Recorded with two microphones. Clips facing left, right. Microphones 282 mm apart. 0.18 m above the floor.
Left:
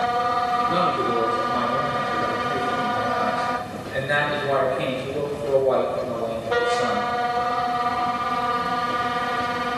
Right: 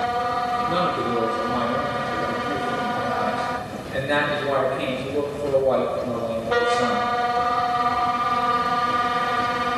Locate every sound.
0.7 s a man speaking: 35° right (ahead or behind), 3.5 m